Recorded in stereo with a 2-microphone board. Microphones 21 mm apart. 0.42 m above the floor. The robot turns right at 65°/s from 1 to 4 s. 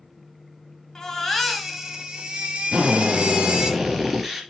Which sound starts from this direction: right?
A drill, at 2.7 s.